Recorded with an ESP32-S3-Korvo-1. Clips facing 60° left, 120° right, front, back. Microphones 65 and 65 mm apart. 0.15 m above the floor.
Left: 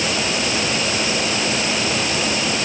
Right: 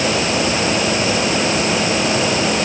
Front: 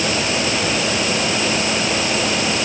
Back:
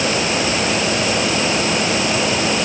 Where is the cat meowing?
I don't hear a cat meowing.